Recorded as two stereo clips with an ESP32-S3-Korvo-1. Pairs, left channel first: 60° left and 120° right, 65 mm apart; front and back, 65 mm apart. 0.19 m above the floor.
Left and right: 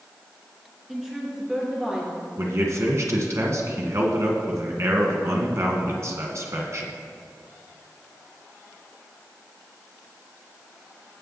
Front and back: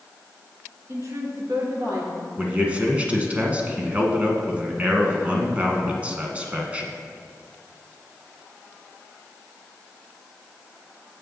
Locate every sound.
0.9 s a woman speaking: 155° left, 2.5 m; by 2.3 s 160° left, 3.5 m
2.4 s a man speaking: 115° right, 1.6 m